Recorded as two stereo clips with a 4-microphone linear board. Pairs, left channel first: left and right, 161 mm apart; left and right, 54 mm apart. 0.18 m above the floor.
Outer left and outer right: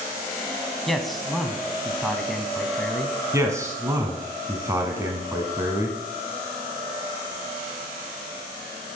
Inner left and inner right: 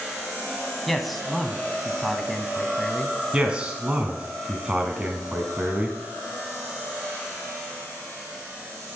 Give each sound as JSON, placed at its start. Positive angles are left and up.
{"t": 0.9, "sound": "a man speaking", "side_deg": 0, "distance_m": 1.0}
{"t": 3.3, "sound": "a man speaking", "side_deg": -20, "distance_m": 1.6}